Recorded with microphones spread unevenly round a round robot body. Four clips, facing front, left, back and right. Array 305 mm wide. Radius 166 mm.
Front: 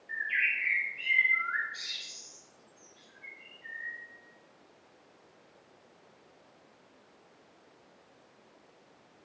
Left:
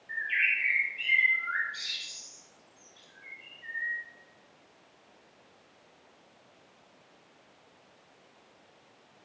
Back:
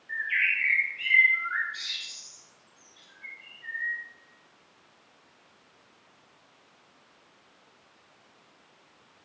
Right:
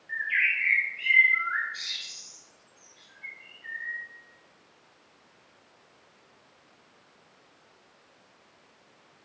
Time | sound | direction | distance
0.1 | a bird | 50° left | 1.6 m